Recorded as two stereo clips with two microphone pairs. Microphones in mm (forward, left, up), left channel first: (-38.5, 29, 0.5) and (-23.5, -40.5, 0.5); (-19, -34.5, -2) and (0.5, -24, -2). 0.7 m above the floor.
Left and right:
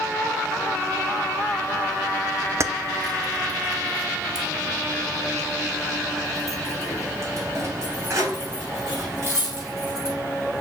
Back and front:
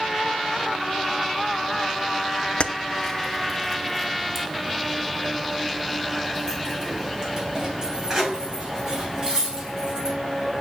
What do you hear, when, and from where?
2.6 s keys jangling: 125° right, 0.5 m; by 10.1 s 25° right, 4 m